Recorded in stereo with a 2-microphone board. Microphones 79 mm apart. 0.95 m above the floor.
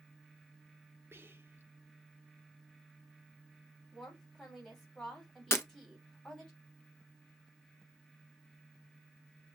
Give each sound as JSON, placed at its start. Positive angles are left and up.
{"t": 1.1, "sound": "whispering", "side_deg": -30, "distance_m": 0.8}
{"t": 3.9, "sound": "a woman speaking", "side_deg": 5, "distance_m": 3.0}
{"t": 5.5, "sound": "breaking glass", "side_deg": 35, "distance_m": 0.7}